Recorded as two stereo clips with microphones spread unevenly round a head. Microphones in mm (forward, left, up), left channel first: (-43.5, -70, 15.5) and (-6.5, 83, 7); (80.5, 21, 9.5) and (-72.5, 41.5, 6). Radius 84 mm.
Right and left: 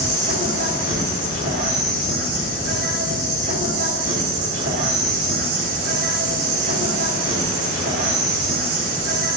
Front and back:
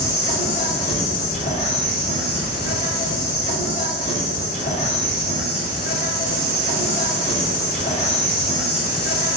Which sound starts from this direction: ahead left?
An insect, at 0.0 s.